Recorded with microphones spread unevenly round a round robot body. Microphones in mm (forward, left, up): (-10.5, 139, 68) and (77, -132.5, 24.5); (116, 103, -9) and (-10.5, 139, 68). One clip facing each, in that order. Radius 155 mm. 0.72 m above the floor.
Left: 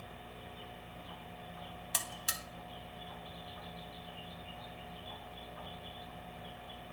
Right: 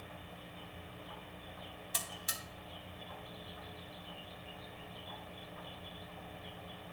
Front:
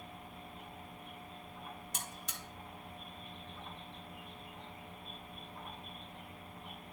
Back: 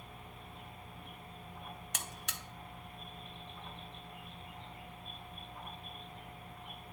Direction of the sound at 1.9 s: 135° left.